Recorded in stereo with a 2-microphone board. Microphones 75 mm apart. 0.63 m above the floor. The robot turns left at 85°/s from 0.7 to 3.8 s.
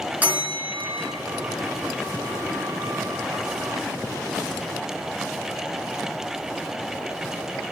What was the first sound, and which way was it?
A bell, 25° right (ahead or behind).